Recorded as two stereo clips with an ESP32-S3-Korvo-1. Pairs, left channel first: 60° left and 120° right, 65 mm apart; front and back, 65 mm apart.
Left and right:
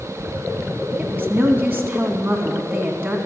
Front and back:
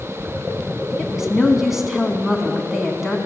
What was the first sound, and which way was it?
A woman speaking, 100° right.